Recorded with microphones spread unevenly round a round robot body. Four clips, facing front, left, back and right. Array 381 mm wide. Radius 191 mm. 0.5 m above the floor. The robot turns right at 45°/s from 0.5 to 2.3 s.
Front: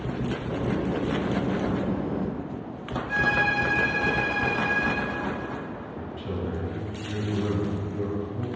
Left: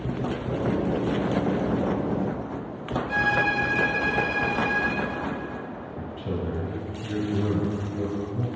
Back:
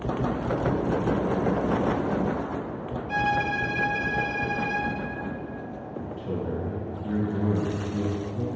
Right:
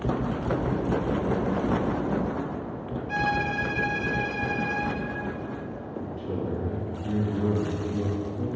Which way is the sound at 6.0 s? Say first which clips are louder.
Even, back 2 dB; 70° left.